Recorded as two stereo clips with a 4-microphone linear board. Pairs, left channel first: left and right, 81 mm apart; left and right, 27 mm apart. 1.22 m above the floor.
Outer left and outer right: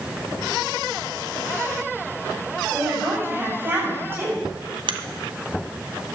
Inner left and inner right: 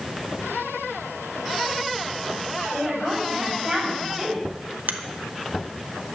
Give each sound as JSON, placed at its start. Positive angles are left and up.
{"t": 2.7, "sound": "a woman speaking", "side_deg": -25, "distance_m": 7.0}
{"t": 4.9, "sound": "a finger snap", "side_deg": -80, "distance_m": 1.0}